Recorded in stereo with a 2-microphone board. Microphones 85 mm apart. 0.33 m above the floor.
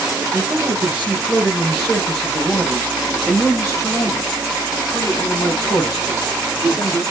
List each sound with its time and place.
0.3 s a man speaking: 30° right (ahead or behind), 1.7 m; by 7.0 s 60° left (ahead or behind), 3.5 m